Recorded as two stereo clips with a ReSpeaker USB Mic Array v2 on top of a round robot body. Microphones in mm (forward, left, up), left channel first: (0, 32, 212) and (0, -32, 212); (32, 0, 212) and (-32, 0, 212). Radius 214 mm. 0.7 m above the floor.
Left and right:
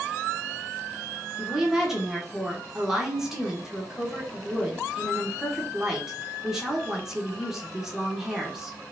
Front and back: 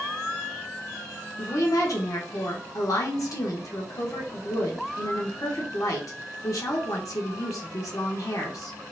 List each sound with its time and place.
1.4 s a woman speaking: 5° right, 1.2 m